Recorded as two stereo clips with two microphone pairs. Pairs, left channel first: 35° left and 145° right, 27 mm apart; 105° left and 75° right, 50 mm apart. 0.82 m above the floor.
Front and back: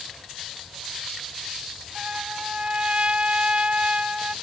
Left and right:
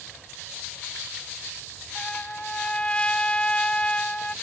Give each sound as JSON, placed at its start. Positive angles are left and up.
{"t": 1.9, "sound": "a trumpet", "azimuth_deg": 170}